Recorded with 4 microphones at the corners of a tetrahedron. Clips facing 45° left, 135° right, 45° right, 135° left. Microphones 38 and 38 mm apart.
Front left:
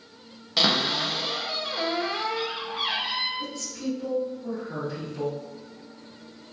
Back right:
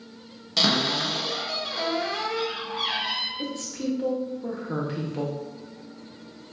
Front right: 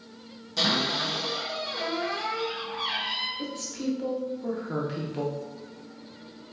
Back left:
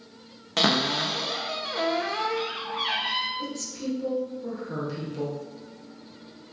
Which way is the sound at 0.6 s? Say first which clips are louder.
Even, back left 3 dB; 120° left.